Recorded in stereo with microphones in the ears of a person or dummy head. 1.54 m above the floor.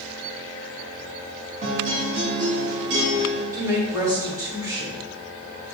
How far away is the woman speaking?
About 3 m.